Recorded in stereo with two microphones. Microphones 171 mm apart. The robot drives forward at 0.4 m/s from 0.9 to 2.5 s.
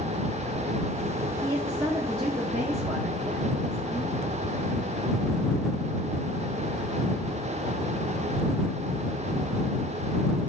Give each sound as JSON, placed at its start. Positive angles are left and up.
{"t": 1.4, "sound": "a woman speaking", "side_deg": -25, "distance_m": 1.3}